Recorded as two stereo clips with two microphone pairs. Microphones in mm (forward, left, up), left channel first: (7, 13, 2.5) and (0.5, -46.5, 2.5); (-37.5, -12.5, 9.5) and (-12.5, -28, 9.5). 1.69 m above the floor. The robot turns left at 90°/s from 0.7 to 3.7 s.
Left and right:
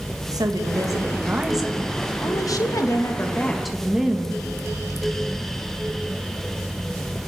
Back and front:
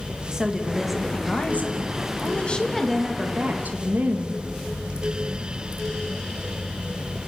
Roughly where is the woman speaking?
Right.